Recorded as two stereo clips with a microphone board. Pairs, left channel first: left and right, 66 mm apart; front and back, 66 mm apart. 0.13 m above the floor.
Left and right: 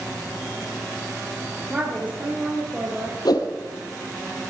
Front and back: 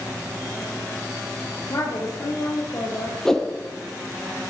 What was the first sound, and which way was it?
A woman speaking, 25° right.